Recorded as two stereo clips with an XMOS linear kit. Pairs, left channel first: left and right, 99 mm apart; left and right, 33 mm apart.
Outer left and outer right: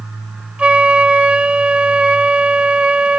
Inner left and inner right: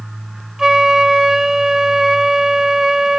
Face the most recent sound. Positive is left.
turn(degrees=-10)  # may be behind; listen again after turning